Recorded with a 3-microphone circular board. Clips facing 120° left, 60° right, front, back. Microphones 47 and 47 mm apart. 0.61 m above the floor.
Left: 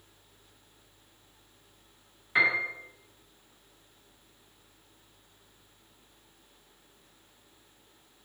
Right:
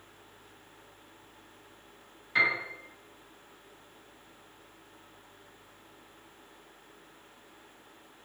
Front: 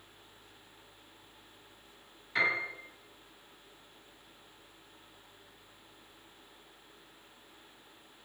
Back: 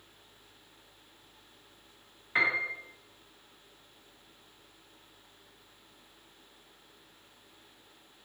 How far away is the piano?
About 1.1 m.